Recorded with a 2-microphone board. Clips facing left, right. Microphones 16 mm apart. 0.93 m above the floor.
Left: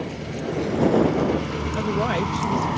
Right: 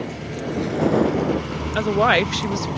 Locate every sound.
0.0 s a vehicle: 20° right (ahead or behind); by 2.8 s 30° left (ahead or behind)
1.8 s a woman speaking: 45° right (ahead or behind)